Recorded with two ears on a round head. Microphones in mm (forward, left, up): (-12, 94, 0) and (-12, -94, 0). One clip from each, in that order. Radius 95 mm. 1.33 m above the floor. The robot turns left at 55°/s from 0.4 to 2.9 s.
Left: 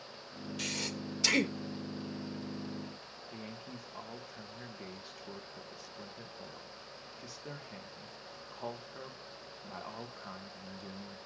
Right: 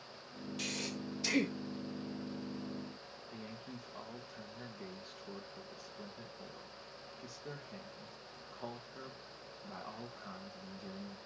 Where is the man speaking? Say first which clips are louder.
Left 3 dB; 25° left (ahead or behind), 1.6 m.